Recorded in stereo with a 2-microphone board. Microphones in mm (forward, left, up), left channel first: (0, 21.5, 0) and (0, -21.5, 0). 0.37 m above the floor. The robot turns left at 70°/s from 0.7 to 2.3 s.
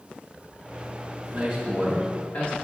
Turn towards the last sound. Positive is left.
turn(degrees=130)